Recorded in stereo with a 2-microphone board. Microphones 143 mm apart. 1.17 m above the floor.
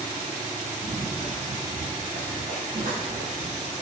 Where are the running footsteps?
65° right (ahead or behind), 5.5 m; by 3.7 s 70° right (ahead or behind), 7.5 m.